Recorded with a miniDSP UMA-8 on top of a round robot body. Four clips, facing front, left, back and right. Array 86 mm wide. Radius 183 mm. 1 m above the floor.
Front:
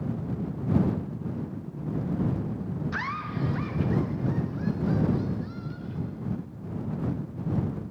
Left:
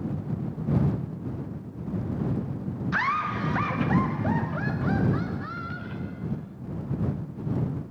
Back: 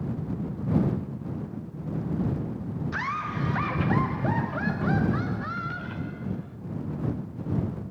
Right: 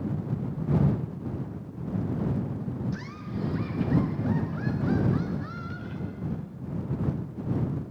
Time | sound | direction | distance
2.9 | laughter | 90° left | ?